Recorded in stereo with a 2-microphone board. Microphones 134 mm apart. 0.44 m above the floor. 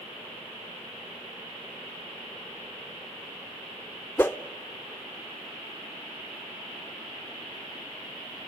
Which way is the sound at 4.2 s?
15° left (ahead or behind).